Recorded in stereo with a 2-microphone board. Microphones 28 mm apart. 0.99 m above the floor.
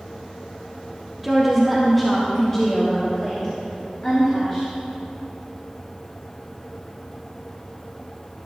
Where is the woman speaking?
5° right (ahead or behind), 1.3 m; by 4.7 s 30° left (ahead or behind), 3 m.